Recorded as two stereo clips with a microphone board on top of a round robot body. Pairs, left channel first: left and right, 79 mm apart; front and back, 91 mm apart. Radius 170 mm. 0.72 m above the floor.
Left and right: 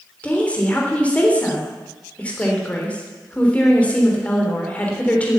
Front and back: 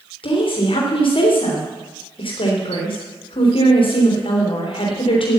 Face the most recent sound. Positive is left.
turn(degrees=15)